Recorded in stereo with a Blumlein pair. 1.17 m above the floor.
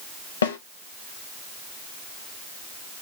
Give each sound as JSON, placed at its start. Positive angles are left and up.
{"t": 0.4, "sound": "a snare drum", "azimuth_deg": 65, "distance_m": 0.6}